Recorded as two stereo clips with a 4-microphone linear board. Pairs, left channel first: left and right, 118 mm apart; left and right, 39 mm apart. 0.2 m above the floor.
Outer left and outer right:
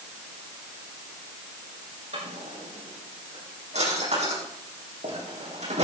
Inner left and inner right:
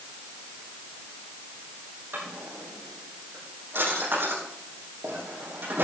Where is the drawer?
70° right (ahead or behind), 5 m.